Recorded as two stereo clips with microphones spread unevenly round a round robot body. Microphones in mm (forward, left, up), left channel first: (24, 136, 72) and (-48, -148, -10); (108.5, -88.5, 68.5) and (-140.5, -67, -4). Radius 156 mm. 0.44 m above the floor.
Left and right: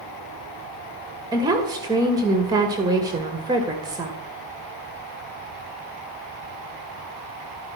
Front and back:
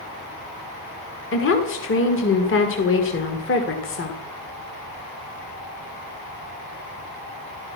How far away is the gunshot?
No gunshot in this recording.